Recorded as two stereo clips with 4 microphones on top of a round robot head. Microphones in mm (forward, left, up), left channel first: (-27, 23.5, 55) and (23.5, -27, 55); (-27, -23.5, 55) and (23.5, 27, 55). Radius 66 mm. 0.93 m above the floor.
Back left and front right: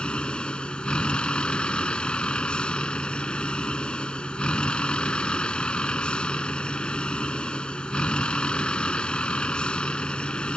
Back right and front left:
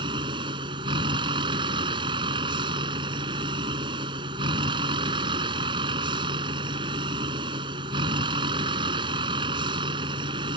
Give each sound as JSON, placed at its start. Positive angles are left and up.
{"t": 0.0, "sound": "a vehicle", "azimuth_deg": 55}